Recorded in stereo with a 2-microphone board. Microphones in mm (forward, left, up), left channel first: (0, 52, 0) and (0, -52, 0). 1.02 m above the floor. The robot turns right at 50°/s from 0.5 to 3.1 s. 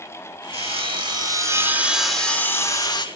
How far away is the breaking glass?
I don't hear breaking glass.